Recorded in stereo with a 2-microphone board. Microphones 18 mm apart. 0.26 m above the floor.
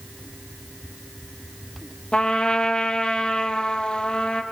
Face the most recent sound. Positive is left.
turn(degrees=55)  # may be behind; listen again after turning